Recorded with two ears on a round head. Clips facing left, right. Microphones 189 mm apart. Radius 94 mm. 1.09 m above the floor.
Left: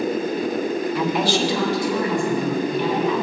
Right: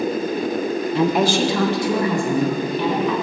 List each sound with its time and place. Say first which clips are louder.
0.9 s a woman speaking: right 5 dB; 25° right (ahead or behind), 0.5 m; by 3.2 s 60° right (ahead or behind), 2.5 m